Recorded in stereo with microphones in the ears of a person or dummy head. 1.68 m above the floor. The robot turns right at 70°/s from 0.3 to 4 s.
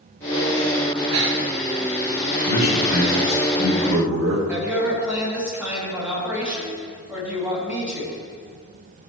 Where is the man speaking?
135° left, 2 m; by 4.4 s 115° right, 2 m.